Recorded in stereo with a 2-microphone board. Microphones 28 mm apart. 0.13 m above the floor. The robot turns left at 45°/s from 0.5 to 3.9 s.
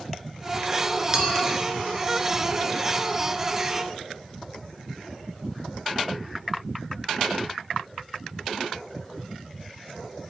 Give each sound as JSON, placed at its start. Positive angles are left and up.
{"t": 1.1, "sound": "a clink", "side_deg": -25, "distance_m": 1.4}